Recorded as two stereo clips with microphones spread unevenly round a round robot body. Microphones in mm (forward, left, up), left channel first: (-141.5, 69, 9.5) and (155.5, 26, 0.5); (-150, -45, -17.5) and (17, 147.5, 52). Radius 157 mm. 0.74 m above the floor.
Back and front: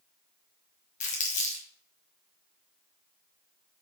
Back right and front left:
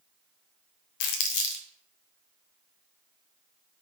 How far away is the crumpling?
About 0.7 m.